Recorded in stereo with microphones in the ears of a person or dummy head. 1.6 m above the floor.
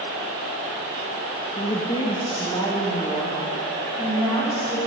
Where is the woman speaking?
30° left (ahead or behind), 1.3 m; by 4.8 s 15° left (ahead or behind), 4 m.